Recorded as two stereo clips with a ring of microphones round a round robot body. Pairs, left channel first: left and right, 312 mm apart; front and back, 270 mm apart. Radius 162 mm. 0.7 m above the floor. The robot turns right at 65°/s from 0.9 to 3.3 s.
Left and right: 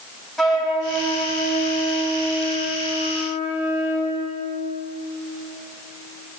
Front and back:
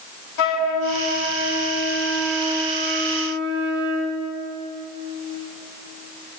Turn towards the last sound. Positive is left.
turn(degrees=155)